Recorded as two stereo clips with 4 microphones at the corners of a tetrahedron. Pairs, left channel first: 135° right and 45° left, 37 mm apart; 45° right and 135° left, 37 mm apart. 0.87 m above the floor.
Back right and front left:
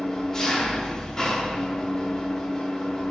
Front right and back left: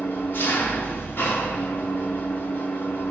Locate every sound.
0.0 s an engine running: 60° right, 1.0 m